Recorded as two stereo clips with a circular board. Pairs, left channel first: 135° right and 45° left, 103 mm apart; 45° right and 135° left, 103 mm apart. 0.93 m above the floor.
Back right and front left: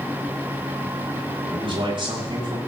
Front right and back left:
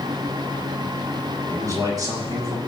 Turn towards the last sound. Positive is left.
turn(degrees=90)